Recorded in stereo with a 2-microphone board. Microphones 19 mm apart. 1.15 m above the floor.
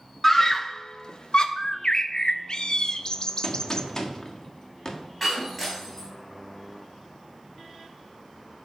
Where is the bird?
45° left (ahead or behind), 0.5 m.